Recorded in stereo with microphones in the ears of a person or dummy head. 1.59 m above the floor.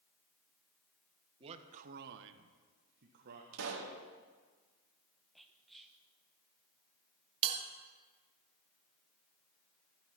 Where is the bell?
30° right (ahead or behind), 1.1 m.